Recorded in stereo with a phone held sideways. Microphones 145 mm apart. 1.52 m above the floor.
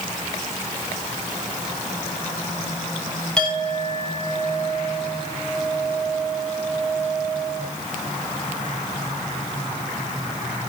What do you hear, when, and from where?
3.4 s a clink: 5° left (ahead or behind), 6 m